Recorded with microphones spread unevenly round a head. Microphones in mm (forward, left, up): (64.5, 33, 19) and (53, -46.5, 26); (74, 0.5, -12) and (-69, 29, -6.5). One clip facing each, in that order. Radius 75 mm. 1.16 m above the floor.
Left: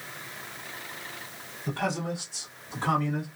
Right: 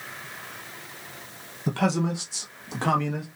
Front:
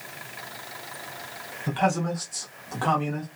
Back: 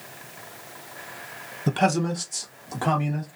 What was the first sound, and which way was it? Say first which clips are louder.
A man speaking: right 5 dB, back 2 dB; 155° right.